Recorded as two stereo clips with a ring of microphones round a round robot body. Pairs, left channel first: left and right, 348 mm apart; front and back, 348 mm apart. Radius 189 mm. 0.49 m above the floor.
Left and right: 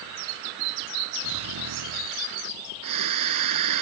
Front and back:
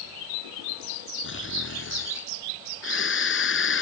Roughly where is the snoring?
Ahead right.